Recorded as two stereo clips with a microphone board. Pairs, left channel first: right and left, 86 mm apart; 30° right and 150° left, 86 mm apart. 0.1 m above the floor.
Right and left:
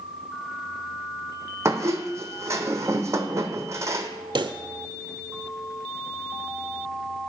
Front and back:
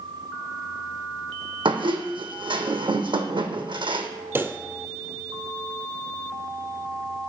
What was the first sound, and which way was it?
A squeak, 145° left.